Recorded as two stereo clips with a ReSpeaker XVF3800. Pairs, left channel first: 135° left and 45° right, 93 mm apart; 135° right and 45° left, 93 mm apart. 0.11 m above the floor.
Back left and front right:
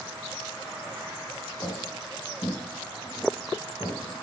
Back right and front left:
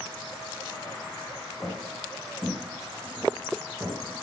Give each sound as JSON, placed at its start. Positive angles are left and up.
{"t": 1.6, "sound": "footsteps", "azimuth_deg": 140, "distance_m": 3.0}